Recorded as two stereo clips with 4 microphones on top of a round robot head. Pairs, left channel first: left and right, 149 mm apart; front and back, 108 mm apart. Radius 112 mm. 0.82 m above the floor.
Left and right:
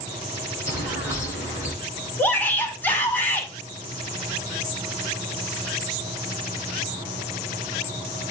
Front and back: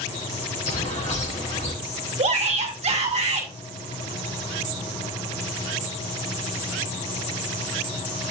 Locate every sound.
0.7 s a bird: 15° left, 4.5 m
2.2 s a shout: 170° left, 2.5 m